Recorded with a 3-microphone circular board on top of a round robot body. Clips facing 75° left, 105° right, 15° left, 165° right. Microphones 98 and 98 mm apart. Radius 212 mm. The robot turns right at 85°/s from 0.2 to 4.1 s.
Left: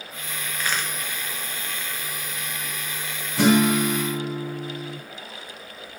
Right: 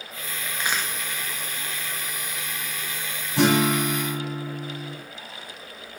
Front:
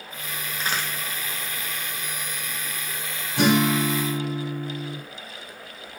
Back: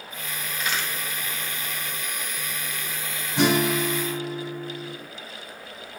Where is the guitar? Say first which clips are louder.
Left 2 dB, front 1 dB; 100° right, 1.4 m; by 5.0 s 35° right, 1.4 m.